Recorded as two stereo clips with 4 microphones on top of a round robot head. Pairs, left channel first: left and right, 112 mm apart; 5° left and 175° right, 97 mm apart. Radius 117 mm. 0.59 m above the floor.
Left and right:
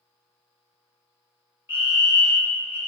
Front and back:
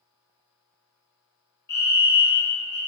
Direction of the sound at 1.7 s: 30° right.